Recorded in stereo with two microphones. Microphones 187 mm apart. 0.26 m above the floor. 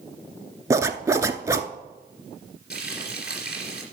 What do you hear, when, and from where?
0.7 s a zipper: 15° right (ahead or behind), 0.5 m
2.7 s frying: 60° left (ahead or behind), 3 m